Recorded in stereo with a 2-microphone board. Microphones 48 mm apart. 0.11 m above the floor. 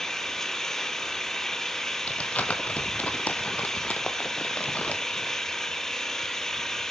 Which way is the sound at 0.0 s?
10° left (ahead or behind).